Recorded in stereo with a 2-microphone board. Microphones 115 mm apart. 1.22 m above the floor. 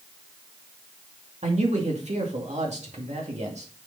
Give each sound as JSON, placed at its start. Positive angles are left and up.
{"t": 1.4, "sound": "a man speaking", "side_deg": -75, "distance_m": 2.5}